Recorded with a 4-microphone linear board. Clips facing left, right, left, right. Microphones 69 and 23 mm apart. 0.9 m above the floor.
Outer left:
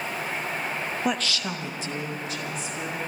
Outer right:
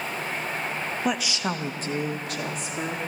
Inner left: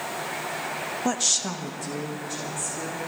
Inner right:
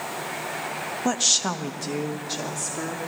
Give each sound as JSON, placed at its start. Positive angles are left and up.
{"t": 1.1, "sound": "a woman speaking", "side_deg": 0, "distance_m": 0.8}